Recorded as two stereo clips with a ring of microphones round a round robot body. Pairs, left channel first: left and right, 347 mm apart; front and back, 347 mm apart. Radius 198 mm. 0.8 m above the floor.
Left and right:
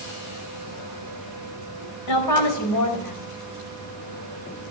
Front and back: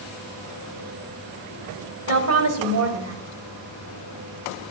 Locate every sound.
2.1 s a woman speaking: 135° left, 4 m